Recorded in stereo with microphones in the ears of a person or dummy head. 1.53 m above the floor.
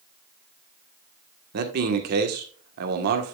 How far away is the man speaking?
About 1.4 m.